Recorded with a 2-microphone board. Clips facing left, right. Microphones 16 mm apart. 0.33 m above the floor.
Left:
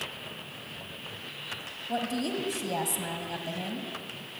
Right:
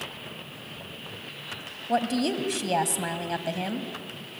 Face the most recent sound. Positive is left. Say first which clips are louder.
# right 6 dB
turn(degrees=-25)  # may be behind; listen again after turning